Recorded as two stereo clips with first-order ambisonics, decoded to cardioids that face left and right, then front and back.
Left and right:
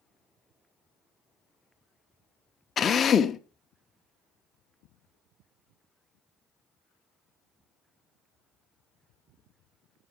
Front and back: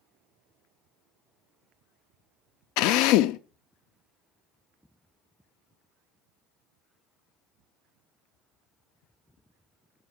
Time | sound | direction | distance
2.8 | a drill | 25° left | 0.7 m